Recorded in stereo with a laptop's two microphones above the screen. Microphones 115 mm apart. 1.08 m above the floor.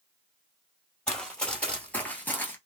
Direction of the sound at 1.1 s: 5° left (ahead or behind).